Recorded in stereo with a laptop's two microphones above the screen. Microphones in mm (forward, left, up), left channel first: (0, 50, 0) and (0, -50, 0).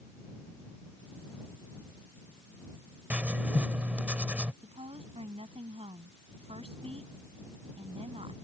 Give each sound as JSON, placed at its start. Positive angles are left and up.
{"t": 3.1, "sound": "writing", "side_deg": -15}
{"t": 4.6, "sound": "a woman speaking", "side_deg": -75}